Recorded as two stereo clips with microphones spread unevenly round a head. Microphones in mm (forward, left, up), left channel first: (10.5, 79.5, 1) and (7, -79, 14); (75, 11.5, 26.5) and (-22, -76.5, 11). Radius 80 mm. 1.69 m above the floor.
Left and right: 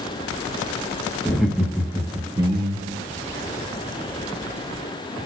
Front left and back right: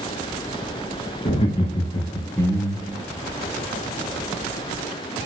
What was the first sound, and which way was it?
Laughter, straight ahead.